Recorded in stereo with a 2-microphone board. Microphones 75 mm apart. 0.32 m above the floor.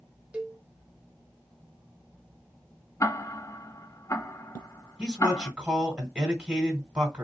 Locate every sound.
0.3 s a cowbell: 15° right (ahead or behind), 0.6 m
3.0 s ticking: 40° left (ahead or behind), 0.6 m
5.0 s a man speaking: 15° right (ahead or behind), 2.5 m